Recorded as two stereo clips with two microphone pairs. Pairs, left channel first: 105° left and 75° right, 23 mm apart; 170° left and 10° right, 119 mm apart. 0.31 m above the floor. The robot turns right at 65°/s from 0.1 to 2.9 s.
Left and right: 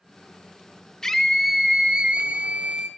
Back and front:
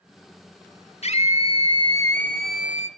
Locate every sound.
1.0 s a scream: 165° left, 3.5 m; by 2.9 s 70° right, 3.5 m